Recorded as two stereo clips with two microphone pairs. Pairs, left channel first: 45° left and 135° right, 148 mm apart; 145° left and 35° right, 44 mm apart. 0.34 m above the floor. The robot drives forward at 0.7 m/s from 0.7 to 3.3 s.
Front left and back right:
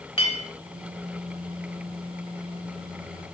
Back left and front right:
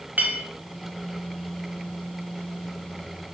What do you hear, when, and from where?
0.2 s a clink: 5° left, 0.9 m